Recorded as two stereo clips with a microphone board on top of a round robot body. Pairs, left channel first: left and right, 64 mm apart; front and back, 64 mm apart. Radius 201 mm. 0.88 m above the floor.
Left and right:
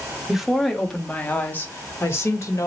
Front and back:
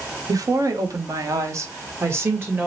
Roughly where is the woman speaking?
Behind.